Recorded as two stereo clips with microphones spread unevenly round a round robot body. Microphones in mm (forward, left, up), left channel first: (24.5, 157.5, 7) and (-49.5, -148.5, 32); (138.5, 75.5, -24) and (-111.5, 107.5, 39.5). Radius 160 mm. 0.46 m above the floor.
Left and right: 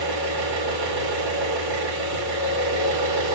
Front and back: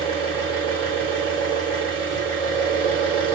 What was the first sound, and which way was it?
An engine running, 85° right.